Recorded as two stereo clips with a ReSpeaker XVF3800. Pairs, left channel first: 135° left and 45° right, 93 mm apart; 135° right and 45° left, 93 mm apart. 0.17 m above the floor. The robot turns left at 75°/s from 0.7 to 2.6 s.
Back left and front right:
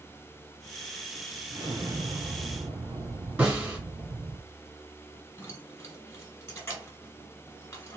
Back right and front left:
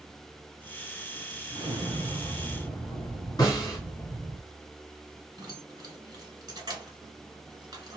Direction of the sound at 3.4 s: 110° right.